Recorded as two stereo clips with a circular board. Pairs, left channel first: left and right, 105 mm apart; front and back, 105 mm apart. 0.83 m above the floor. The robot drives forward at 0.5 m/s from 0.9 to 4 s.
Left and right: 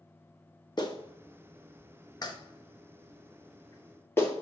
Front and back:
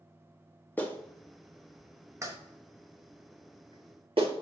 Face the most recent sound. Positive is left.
turn(degrees=155)